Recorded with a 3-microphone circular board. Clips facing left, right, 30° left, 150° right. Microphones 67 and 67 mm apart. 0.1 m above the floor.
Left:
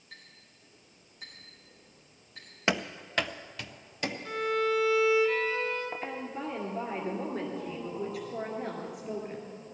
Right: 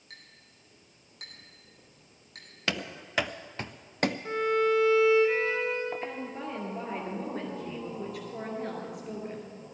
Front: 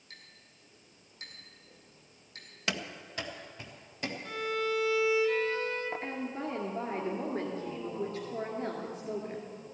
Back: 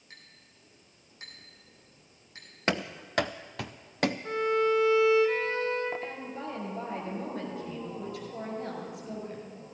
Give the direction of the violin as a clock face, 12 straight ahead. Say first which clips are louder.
Right 2 dB, back 6 dB; 4 o'clock.